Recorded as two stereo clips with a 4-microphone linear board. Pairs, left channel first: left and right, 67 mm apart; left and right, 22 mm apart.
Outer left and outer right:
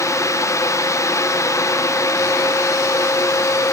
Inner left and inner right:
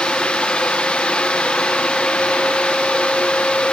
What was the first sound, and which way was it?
Only background noise.